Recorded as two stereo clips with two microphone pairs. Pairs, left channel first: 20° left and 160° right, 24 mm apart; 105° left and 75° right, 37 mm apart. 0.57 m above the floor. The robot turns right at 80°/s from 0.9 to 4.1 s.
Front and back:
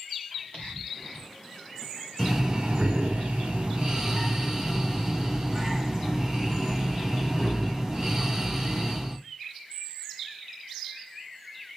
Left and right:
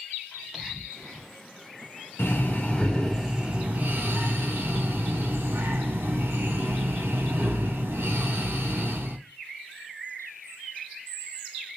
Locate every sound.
0.3 s whispering: 30° left, 2.5 m; by 1.3 s 65° left, 2.5 m
2.2 s breathing: 120° left, 1.5 m; by 9.2 s 85° right, 1.5 m